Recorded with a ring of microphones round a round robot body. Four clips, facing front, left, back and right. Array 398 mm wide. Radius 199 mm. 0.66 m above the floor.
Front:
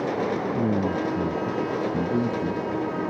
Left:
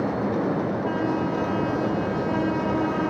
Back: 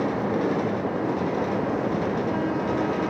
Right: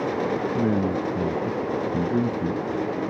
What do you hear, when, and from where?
0.5 s a man speaking: 55° right